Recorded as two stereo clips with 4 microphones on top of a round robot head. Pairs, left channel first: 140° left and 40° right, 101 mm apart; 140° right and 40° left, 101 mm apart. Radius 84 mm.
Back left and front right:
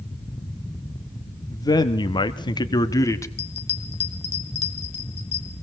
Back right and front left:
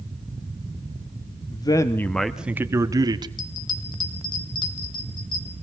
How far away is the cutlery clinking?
No cutlery clinking in this recording.